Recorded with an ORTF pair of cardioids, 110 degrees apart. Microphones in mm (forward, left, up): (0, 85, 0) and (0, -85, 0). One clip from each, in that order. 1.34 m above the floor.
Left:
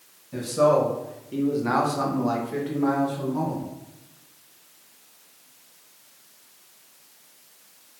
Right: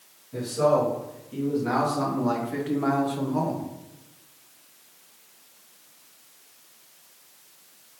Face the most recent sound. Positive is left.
turn(degrees=-50)